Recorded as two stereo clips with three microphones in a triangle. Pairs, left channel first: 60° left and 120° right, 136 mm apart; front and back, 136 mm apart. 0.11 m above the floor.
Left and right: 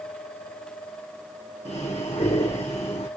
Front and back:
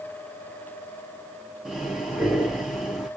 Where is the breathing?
95° left, 5 m.